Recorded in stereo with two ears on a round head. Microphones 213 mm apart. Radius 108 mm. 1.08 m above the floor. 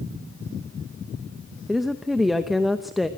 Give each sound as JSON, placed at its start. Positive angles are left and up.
{"t": 1.7, "sound": "a woman speaking", "side_deg": 0, "distance_m": 0.8}